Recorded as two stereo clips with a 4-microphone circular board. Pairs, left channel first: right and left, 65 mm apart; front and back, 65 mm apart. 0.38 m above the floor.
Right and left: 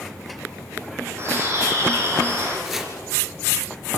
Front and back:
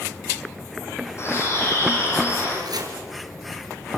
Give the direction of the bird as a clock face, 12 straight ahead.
11 o'clock.